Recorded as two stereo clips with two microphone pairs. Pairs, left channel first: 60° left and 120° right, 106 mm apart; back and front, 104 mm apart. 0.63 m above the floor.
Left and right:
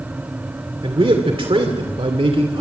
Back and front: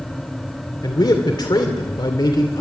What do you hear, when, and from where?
0.8 s a man speaking: 145° right, 2 m